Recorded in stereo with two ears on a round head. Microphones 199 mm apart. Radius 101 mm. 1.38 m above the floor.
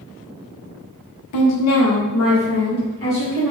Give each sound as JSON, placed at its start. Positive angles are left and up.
{"t": 1.3, "sound": "a woman speaking", "side_deg": 75, "distance_m": 0.7}